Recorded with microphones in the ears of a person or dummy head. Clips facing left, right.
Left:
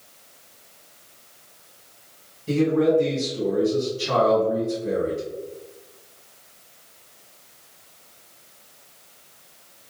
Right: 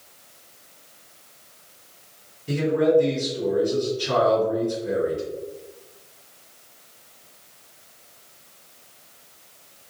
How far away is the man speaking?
About 1.4 m.